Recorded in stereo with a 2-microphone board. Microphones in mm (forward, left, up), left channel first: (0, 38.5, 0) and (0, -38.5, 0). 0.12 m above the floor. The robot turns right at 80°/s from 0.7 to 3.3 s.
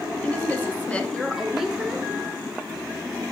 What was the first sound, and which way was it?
A woman speaking, 20° left (ahead or behind).